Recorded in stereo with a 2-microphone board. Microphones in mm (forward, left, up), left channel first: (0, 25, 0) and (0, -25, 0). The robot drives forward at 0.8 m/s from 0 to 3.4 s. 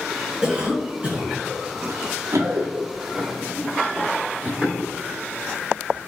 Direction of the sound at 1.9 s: 65° right (ahead or behind).